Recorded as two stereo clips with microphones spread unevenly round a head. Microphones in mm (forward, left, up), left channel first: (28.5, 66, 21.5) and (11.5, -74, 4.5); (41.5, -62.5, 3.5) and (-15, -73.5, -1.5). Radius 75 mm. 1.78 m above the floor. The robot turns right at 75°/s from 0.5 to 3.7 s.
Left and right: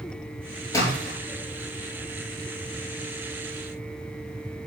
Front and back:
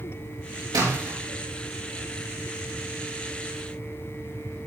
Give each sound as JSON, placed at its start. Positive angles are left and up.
{"t": 0.7, "sound": "a splash", "azimuth_deg": 150, "distance_m": 3.0}